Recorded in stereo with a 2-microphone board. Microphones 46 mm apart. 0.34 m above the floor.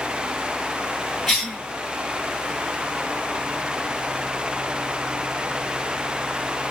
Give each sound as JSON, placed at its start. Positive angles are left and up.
{"t": 1.3, "sound": "a cough", "side_deg": -5, "distance_m": 1.3}